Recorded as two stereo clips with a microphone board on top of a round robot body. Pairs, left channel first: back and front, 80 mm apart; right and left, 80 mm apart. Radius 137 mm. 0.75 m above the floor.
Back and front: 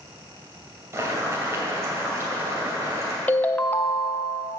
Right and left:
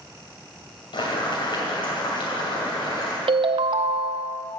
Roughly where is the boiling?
Ahead right.